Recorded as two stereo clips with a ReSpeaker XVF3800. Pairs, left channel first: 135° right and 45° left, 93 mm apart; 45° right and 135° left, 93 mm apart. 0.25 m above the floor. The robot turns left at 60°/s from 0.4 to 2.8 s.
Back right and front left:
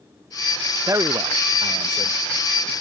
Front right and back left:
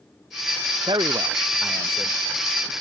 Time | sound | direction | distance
0.9 | a man speaking | 105° left | ?